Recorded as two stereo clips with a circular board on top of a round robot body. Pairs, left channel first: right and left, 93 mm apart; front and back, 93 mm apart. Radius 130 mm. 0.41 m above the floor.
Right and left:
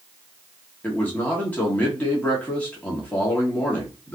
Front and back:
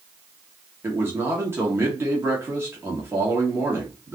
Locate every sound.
0.8 s a man speaking: 150° right, 1.4 m